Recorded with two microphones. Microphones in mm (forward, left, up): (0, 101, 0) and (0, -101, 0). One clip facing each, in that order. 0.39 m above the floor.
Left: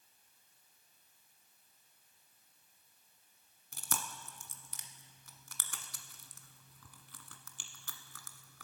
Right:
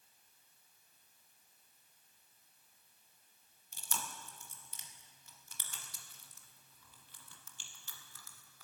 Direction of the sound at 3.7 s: 80° left.